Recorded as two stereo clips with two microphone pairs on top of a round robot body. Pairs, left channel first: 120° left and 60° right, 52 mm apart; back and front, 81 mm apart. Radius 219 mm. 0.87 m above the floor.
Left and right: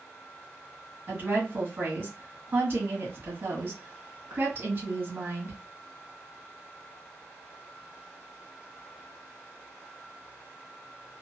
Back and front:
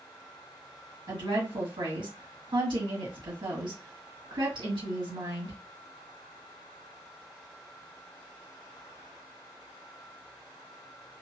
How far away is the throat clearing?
No throat clearing in this recording.